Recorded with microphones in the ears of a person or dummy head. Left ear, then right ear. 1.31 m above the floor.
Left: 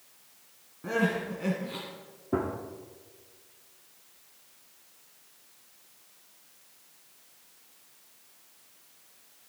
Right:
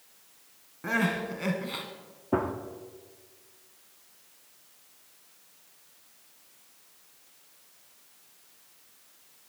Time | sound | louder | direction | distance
0.8 | crying | right 1 dB | 35° right (ahead or behind) | 1.8 m
2.3 | a gunshot | right 2 dB | 35° right (ahead or behind) | 1.0 m